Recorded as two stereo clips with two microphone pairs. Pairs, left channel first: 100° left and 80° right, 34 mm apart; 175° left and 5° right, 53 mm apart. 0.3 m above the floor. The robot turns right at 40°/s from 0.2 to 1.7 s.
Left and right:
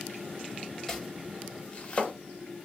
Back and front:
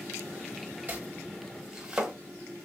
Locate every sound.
0.9 s chopping: 30° left, 0.8 m; by 2.1 s 65° left, 0.8 m